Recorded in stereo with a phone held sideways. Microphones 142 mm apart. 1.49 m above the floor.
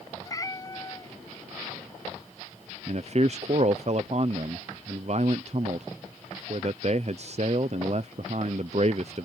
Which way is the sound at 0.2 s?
25° left (ahead or behind).